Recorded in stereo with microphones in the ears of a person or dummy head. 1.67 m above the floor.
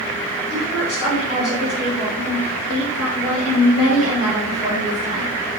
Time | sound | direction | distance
0.5 | a woman speaking | 55° left (ahead or behind) | 3.5 m